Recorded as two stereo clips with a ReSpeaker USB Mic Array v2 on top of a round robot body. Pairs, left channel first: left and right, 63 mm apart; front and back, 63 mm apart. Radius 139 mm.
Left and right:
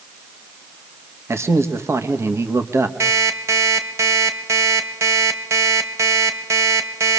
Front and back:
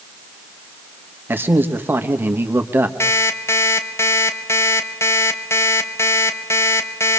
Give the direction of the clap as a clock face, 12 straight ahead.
No clap in this recording.